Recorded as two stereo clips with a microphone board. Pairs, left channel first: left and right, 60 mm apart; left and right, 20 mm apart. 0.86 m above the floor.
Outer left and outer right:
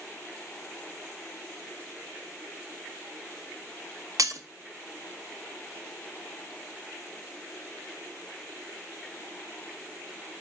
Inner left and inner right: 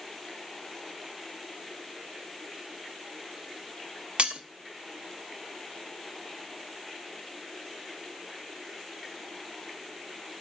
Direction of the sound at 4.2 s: 65° right (ahead or behind).